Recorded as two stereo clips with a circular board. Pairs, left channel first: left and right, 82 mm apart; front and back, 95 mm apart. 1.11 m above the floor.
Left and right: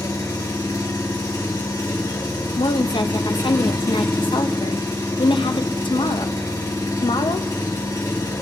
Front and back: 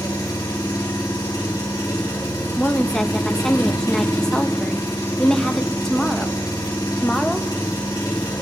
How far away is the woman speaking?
About 0.7 m.